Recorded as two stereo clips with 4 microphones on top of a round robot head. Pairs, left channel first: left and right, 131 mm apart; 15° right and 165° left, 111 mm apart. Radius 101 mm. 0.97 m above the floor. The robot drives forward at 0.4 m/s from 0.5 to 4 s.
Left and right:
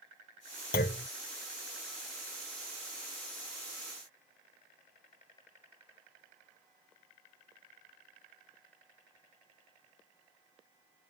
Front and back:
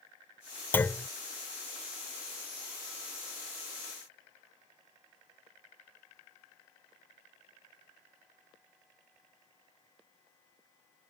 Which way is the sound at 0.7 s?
60° left.